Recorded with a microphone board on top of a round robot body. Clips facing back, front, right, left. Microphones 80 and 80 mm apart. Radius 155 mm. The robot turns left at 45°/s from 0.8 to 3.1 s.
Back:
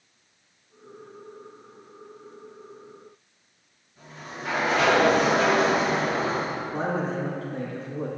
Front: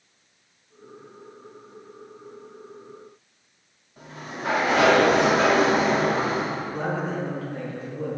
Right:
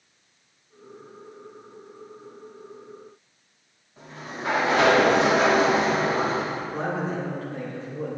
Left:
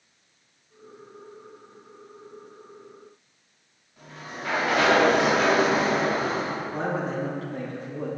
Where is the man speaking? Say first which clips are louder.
Even, left 1 dB; 130° left, 2.5 m.